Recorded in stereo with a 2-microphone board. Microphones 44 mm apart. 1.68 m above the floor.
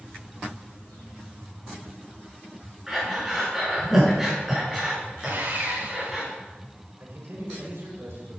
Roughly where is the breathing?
Centre.